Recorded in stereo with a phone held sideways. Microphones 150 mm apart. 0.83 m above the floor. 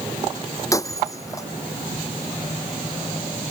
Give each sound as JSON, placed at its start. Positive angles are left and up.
{"t": 0.7, "sound": "breaking glass", "side_deg": 20}